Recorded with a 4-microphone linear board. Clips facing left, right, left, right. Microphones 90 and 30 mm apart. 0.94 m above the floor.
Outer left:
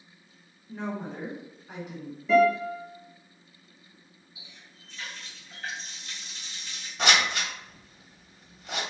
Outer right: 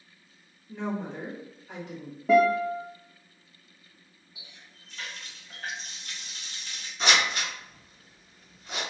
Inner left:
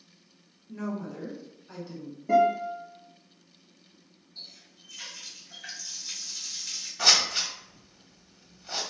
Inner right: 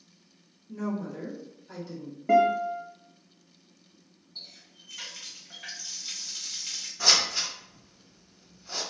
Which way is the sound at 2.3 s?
50° right (ahead or behind).